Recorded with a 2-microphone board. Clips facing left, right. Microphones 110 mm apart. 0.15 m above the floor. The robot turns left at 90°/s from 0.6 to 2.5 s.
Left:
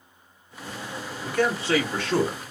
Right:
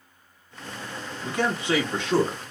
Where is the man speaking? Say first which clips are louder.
Left 2 dB; 15° right (ahead or behind), 1.4 m; by 2.5 s 10° right (ahead or behind), 1.4 m.